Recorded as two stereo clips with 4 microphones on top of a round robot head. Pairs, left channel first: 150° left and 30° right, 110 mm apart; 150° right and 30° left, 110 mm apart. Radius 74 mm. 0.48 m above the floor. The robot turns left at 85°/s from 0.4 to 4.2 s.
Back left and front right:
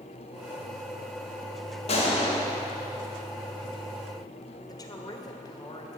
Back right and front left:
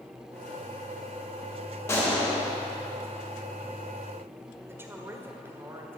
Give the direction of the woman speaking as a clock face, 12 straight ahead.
9 o'clock.